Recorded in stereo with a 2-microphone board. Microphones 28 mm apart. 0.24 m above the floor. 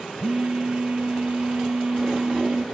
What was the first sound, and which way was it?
A phone buzzing, 55° right (ahead or behind).